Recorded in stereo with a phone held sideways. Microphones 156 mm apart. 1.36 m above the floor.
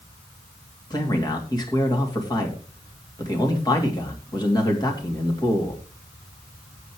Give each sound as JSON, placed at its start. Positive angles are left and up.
{"t": 0.9, "sound": "a man speaking", "side_deg": 25, "distance_m": 3.0}